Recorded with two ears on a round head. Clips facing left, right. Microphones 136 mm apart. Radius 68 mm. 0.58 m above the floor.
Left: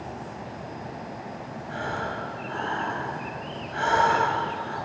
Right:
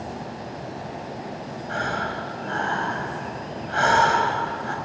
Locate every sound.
1.7 s breathing: 75° right (ahead or behind), 4 m